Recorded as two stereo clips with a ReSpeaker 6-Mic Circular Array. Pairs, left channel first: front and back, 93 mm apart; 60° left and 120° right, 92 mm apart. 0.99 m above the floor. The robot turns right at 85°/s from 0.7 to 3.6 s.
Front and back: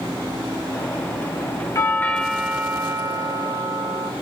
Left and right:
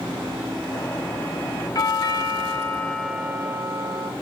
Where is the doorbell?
40° left, 0.8 m; by 4.1 s 160° right, 0.8 m.